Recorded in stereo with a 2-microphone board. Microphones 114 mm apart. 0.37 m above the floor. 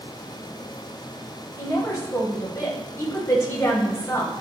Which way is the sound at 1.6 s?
25° left (ahead or behind).